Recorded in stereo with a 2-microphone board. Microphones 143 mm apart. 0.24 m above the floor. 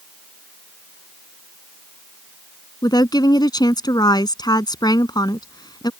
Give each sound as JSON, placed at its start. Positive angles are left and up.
{"t": 2.8, "sound": "a woman speaking", "side_deg": 30}